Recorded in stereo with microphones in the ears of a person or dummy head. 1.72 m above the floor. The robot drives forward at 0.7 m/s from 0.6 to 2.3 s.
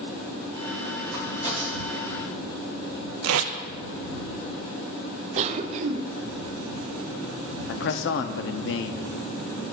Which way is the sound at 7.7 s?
65° left (ahead or behind).